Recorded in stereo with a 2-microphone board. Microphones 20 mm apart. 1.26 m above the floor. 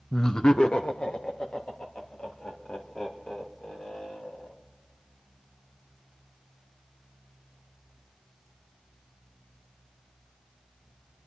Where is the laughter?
25° left (ahead or behind), 0.6 m; by 4.5 s 80° left, 6 m.